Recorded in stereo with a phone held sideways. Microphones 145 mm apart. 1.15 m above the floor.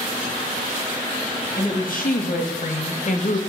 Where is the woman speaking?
75° left (ahead or behind), 2 m; by 3.4 s 60° left (ahead or behind), 1.1 m.